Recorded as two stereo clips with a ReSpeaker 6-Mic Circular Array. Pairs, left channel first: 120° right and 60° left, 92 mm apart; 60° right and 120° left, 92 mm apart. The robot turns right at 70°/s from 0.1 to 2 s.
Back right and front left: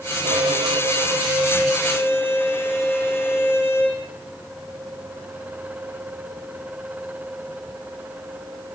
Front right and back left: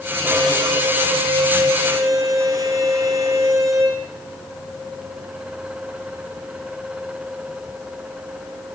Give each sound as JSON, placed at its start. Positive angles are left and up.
{"t": 0.2, "sound": "a violin", "azimuth_deg": 50, "distance_m": 6.0}